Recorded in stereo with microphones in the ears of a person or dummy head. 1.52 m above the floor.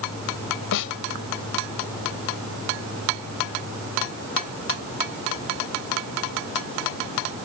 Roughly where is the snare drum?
Left.